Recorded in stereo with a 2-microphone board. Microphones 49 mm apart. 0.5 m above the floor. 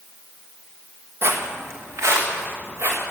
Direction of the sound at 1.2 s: 55° right (ahead or behind).